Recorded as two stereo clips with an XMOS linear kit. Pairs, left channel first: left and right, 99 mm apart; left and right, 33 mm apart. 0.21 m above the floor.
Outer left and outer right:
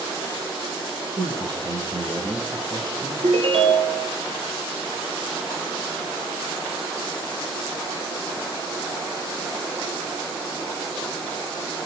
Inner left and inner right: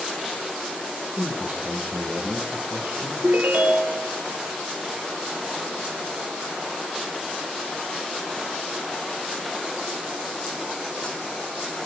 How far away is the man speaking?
About 6.5 m.